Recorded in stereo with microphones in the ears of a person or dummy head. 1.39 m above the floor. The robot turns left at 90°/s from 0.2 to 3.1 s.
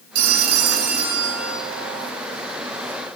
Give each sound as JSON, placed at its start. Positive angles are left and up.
{"t": 0.1, "sound": "a phone ringing", "azimuth_deg": -65, "distance_m": 1.3}